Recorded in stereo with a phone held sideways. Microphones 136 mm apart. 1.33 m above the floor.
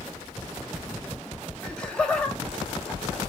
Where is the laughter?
5° left (ahead or behind), 0.8 m.